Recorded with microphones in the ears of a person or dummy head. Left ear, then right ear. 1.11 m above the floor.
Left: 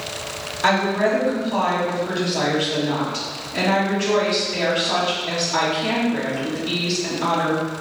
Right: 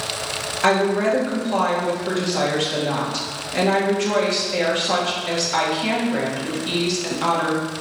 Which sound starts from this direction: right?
A woman speaking, at 0.6 s.